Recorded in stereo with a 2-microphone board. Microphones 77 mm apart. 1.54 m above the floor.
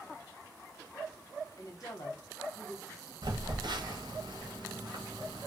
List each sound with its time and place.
1.6 s a woman speaking: 55° left (ahead or behind), 1.0 m
3.2 s a phone buzzing: 80° right, 1.0 m